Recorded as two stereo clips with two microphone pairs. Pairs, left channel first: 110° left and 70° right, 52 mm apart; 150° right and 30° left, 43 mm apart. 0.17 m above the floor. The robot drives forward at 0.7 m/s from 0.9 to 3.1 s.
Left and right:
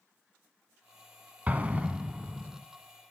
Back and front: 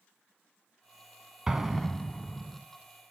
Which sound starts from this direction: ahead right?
An explosion, at 1.5 s.